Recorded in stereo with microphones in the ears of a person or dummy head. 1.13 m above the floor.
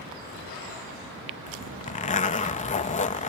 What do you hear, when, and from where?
1.5 s a zipper: 30° left (ahead or behind)